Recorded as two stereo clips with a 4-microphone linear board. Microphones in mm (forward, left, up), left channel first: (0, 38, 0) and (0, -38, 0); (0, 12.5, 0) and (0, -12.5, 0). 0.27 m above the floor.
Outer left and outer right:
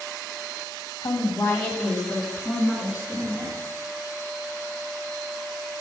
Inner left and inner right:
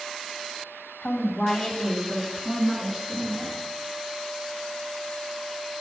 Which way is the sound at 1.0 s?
40° left (ahead or behind).